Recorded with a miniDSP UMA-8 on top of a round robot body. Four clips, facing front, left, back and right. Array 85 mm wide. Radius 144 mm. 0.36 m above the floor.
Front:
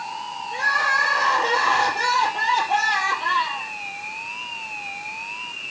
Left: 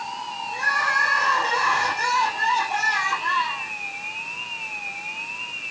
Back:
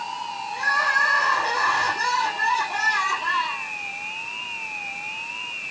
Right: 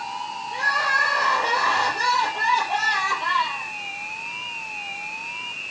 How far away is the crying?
About 5 m.